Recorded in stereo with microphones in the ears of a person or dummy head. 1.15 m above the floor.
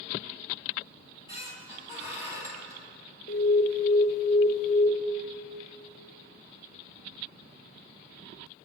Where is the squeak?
20° right (ahead or behind), 2 m.